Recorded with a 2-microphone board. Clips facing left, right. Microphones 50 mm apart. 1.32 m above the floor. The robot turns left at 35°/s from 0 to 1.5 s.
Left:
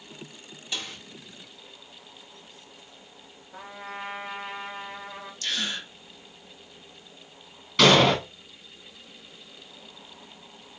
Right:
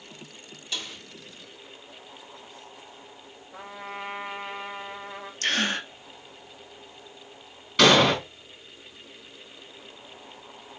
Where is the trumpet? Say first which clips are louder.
Right 1 dB; 5° right (ahead or behind), 1.7 m.